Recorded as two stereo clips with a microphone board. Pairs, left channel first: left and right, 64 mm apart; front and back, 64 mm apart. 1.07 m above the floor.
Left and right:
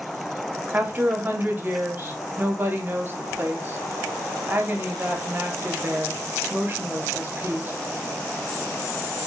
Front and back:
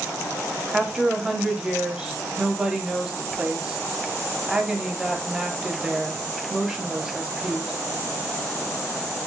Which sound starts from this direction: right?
A woman speaking, at 0.7 s.